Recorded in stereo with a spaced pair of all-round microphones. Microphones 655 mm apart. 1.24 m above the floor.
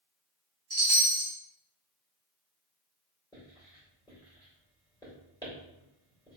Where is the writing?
5° left (ahead or behind), 2 m.